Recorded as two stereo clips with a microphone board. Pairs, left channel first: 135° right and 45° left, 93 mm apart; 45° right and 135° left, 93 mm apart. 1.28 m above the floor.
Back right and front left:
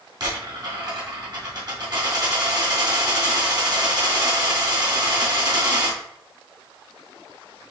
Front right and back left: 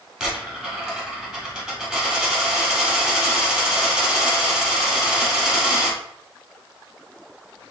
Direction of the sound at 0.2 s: 55° left.